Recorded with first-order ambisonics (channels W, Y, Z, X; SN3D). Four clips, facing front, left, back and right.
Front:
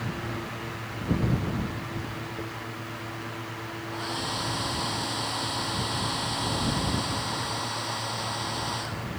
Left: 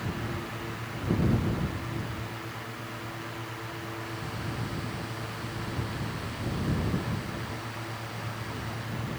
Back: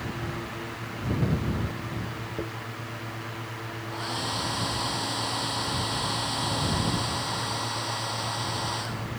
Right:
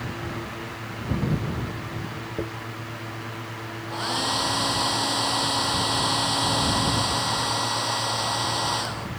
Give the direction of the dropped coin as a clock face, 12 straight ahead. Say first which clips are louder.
Right 9 dB, back 5 dB; 4 o'clock.